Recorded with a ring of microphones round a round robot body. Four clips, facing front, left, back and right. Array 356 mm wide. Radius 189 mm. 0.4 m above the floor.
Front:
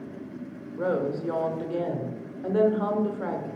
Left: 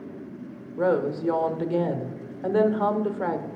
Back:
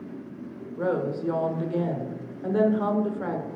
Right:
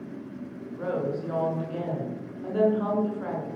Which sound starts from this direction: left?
A woman speaking, at 0.8 s.